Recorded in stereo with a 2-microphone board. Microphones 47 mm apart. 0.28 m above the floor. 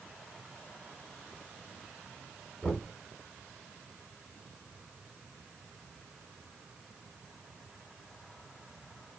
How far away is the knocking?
About 1.9 m.